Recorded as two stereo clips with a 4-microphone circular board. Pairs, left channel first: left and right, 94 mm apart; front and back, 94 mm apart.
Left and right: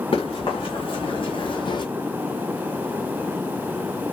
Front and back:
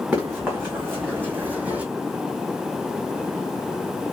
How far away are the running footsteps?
About 1.7 m.